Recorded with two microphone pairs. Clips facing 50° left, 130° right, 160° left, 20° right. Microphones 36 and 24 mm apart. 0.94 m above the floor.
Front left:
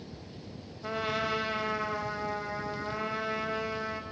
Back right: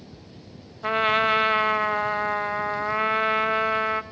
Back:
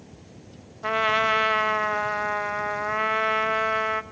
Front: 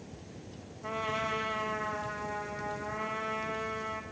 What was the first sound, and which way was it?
A trumpet, 175° right.